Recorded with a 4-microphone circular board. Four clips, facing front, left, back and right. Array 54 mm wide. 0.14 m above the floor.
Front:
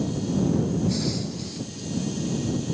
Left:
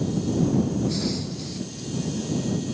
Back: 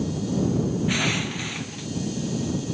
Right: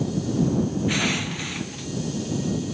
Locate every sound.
0.9 s crushing: 140° right